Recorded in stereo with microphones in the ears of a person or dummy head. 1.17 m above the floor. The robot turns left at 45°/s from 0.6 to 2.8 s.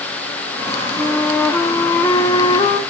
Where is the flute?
Centre (ahead or behind), 0.6 m; by 2.8 s 20° left (ahead or behind), 0.6 m.